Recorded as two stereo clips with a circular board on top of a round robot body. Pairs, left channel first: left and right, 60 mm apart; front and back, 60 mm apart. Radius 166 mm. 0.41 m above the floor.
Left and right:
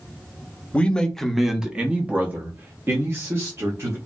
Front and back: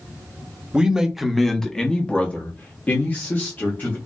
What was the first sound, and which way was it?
A man speaking, 125° left.